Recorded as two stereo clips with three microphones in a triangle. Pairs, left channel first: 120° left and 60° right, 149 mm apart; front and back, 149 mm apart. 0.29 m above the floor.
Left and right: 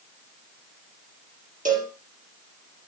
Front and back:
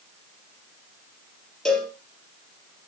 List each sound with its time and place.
1.6 s a cowbell: 85° right, 3.5 m